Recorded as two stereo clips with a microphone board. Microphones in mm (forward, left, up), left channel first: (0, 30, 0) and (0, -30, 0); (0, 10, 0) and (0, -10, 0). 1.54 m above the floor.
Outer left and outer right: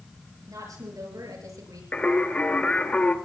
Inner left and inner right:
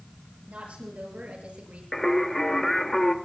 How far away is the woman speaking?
About 7.5 m.